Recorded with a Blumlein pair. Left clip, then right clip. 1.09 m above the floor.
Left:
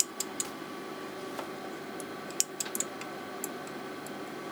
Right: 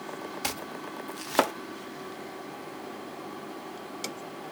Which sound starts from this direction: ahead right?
Chopping, at 0.4 s.